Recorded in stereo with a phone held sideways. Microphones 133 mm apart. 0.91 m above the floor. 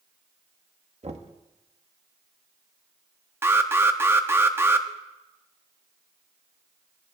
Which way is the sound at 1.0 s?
60° right (ahead or behind).